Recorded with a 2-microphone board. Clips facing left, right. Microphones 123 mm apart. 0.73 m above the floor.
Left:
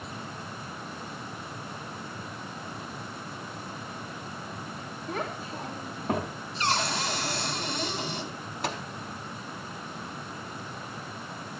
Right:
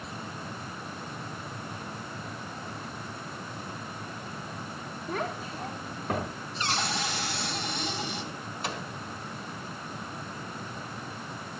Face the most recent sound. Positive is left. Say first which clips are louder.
# left 3 dB
turn(degrees=75)  # may be behind; listen again after turning